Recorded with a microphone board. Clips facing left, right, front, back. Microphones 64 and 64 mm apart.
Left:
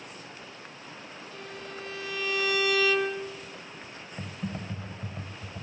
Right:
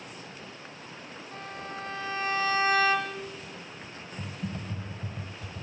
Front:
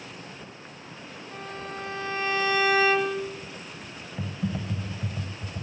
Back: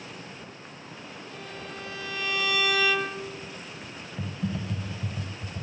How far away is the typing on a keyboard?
About 1.5 m.